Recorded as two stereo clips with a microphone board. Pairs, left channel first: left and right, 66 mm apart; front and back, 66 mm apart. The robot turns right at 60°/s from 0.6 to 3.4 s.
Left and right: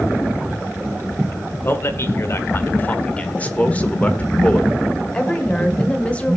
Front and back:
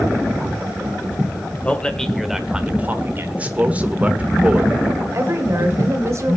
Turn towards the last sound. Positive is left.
turn(degrees=155)